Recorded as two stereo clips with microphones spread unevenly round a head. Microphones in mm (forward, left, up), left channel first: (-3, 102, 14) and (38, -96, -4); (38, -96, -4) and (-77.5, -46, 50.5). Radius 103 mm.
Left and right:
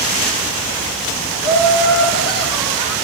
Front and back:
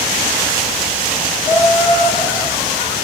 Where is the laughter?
15° left, 1.9 m.